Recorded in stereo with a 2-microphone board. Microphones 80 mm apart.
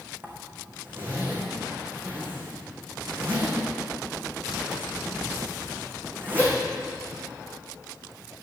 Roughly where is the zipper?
Right.